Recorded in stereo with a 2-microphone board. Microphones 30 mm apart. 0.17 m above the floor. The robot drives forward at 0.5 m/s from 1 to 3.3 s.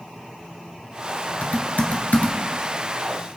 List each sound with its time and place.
1.4 s typing on a keyboard: 60° left (ahead or behind), 2.0 m; by 2.4 s 55° left (ahead or behind), 2 m